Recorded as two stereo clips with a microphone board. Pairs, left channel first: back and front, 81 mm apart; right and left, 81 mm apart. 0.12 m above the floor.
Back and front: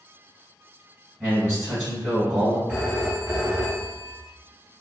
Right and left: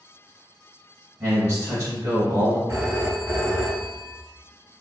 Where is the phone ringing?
55° left, 1.2 m.